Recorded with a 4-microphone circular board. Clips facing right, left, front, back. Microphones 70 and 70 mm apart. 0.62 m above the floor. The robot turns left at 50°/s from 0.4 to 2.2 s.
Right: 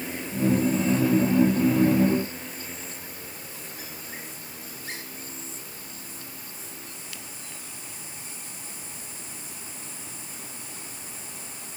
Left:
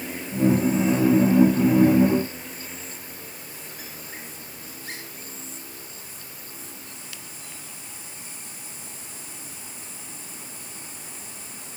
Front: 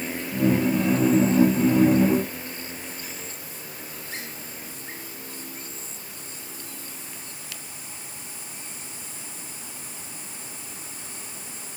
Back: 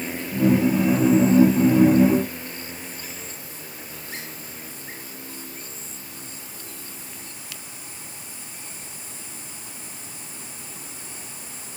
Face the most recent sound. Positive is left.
No sound to turn to.